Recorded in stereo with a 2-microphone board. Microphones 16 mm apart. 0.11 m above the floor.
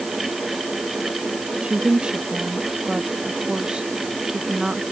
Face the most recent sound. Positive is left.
turn(degrees=-65)  # may be behind; listen again after turning